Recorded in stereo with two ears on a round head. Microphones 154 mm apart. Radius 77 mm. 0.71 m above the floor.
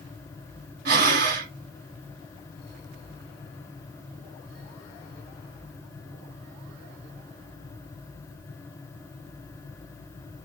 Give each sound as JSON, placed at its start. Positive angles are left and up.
{"t": 0.8, "sound": "breathing", "side_deg": -60, "distance_m": 1.2}